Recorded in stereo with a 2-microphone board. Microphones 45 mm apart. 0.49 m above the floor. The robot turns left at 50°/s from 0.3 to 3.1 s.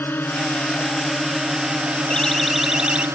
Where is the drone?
55° left; by 3.2 s 85° right.